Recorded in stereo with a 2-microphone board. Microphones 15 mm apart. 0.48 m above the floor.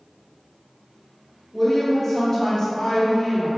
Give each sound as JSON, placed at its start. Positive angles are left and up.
{"t": 1.5, "sound": "a woman speaking", "side_deg": 10, "distance_m": 1.5}